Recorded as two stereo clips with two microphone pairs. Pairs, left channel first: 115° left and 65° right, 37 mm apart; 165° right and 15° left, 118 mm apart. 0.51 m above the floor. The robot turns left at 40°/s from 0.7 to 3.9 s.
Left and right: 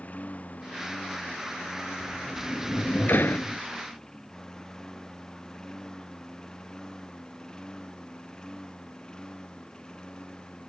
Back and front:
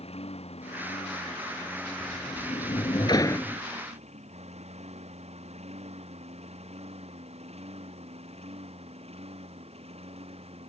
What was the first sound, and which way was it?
A lawn mower, 160° left.